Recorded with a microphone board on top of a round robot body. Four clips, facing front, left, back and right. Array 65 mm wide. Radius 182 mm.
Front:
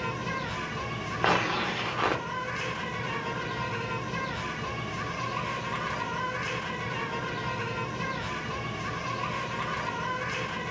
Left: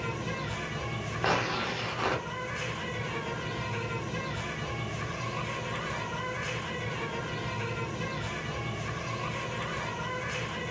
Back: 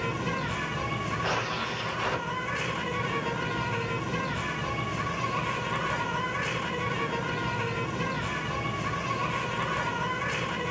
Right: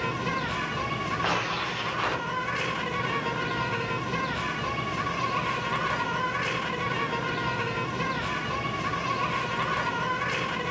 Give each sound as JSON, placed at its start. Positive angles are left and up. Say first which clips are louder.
{"t": 0.0, "sound": "an insect", "louder": "right 6 dB, back 2 dB", "azimuth_deg": -105, "distance_m": 1.0}
{"t": 1.2, "sound": "tearing paper", "louder": "left 3 dB, front 8 dB", "azimuth_deg": 5, "distance_m": 0.5}